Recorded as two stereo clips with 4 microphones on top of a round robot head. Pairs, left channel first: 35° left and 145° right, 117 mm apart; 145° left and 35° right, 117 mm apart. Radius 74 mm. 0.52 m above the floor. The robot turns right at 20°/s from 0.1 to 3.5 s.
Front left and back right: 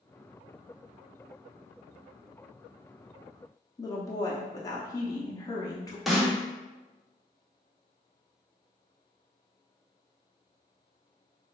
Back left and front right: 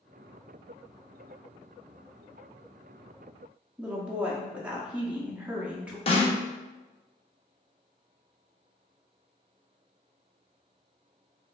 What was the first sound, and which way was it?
A woman speaking, 35° left.